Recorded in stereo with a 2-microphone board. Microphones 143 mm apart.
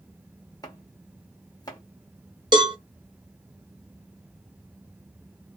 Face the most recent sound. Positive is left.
turn(degrees=-30)  # may be behind; listen again after turning